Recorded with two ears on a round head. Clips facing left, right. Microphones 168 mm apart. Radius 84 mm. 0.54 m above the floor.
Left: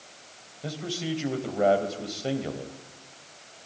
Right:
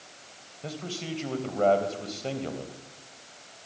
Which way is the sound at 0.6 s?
10° left (ahead or behind).